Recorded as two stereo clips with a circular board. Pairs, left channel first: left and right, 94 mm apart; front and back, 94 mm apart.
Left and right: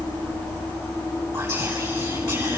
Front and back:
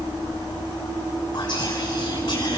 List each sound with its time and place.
1.3 s whispering: 45° right, 8 m